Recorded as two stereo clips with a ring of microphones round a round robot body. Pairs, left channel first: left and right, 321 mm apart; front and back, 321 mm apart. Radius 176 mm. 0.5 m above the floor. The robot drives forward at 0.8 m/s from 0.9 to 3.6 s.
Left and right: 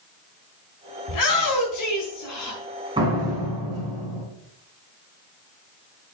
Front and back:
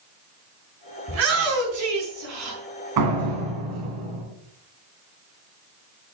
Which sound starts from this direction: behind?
A door slam, at 3.0 s.